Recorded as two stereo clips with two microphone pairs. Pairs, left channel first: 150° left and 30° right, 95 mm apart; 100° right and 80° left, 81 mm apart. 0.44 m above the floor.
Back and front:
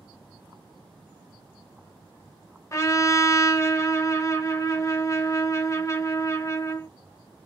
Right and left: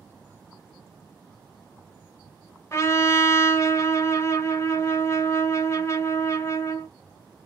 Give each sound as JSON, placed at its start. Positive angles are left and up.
{"t": 2.7, "sound": "a trumpet", "azimuth_deg": -150, "distance_m": 0.7}